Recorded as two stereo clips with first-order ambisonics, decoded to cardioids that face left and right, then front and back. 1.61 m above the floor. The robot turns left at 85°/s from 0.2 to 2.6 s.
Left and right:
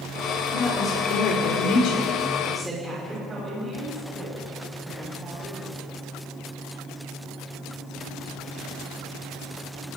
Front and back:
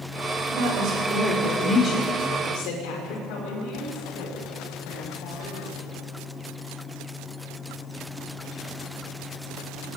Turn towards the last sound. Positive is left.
turn(degrees=-20)